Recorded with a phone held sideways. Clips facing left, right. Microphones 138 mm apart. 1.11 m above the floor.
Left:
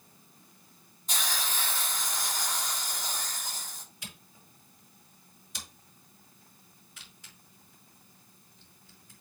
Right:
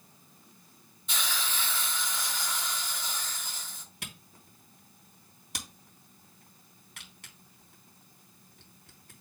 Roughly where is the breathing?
I don't hear breathing.